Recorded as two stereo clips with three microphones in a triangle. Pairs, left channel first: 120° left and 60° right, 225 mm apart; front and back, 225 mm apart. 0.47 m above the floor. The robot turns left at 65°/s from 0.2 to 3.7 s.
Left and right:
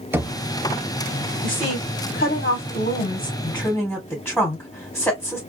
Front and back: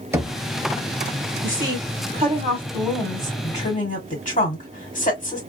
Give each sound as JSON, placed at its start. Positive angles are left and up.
{"t": 0.1, "sound": "knocking", "azimuth_deg": -120, "distance_m": 0.6}
{"t": 1.4, "sound": "a woman speaking", "azimuth_deg": -175, "distance_m": 1.8}